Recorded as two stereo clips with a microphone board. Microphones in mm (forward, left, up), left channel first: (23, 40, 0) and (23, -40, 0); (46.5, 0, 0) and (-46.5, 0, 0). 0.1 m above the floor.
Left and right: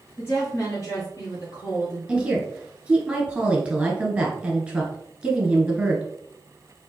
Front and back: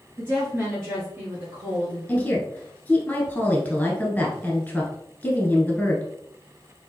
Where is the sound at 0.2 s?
125° left, 1.6 m; by 2.0 s 105° left, 2 m.